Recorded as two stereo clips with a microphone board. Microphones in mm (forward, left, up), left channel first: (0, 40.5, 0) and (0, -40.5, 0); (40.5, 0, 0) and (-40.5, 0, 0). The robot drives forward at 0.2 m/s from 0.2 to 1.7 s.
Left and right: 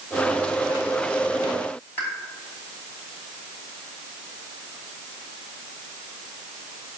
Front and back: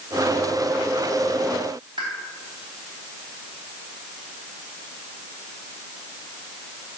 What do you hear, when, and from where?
2.0 s a pop: 155° left, 3 m